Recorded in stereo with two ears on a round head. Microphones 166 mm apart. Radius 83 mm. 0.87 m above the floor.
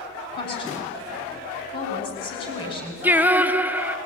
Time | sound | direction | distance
0.3 | a woman speaking | 30° left (ahead or behind) | 6.5 m
3.0 | singing | 10° right (ahead or behind) | 0.6 m